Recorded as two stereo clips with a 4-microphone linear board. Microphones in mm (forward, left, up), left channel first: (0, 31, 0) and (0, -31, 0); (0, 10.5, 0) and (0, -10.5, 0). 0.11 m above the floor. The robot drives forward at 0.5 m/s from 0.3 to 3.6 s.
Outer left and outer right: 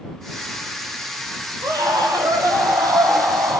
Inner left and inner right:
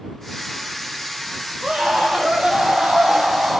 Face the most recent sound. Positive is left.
turn(degrees=-70)  # may be behind; listen again after turning